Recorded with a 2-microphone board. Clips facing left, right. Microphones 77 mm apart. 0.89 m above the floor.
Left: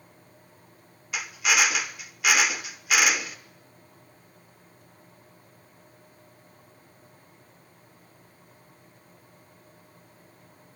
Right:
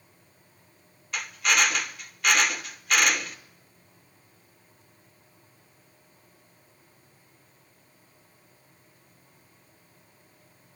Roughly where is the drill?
Centre.